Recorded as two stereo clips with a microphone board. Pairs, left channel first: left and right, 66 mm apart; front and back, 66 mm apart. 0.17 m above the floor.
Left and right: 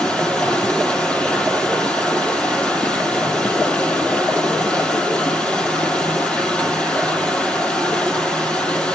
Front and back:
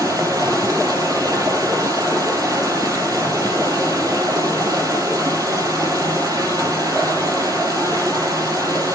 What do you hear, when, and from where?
0.0 s running water: 160° left, 4.5 m